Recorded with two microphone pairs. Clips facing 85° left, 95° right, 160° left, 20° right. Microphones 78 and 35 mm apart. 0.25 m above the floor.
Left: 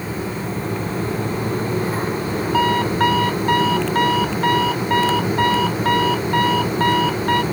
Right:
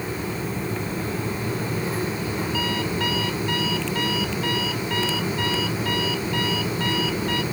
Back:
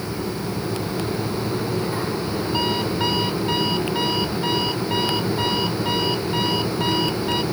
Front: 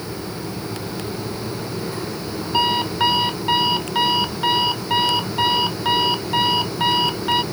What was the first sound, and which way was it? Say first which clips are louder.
An alarm clock: left 12 dB, front 6 dB; 45° left.